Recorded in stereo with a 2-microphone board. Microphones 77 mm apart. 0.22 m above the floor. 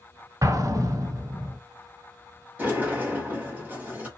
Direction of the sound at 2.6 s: 20° right (ahead or behind).